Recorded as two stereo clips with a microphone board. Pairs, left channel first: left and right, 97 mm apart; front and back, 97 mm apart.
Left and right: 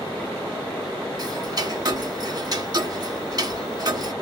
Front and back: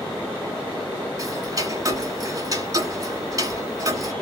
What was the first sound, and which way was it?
Ticking, 130° right.